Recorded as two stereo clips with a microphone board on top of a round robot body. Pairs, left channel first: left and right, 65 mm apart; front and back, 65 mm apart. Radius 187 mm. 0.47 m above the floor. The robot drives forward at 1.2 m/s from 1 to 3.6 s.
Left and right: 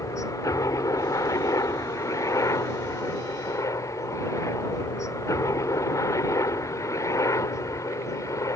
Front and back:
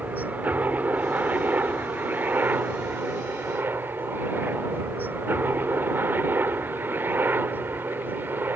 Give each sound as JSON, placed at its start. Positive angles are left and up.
{"t": 0.0, "sound": "a helicopter", "azimuth_deg": 115}